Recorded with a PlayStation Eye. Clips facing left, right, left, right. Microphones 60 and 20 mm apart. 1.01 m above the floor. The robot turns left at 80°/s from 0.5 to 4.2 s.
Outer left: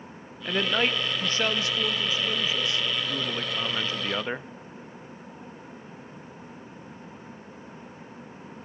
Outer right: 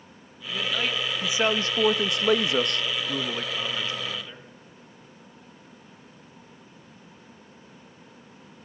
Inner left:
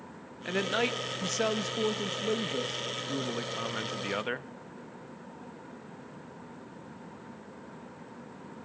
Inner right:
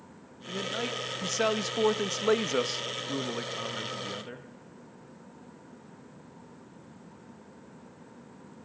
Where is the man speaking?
55° left, 1.0 m; by 4.5 s 120° left, 1.0 m.